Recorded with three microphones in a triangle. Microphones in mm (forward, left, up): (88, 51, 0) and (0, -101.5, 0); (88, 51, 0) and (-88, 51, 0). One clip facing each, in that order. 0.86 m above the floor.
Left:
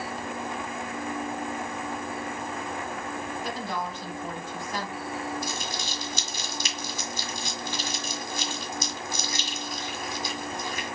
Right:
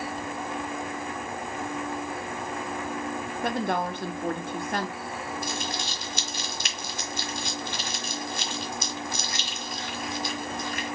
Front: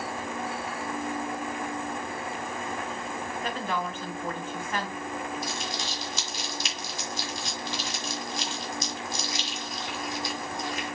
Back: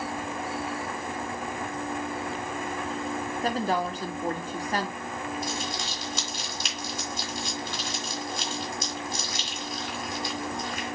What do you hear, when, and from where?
3.4 s a woman speaking: 135° right, 0.9 m
5.4 s crumpling: 90° right, 1.8 m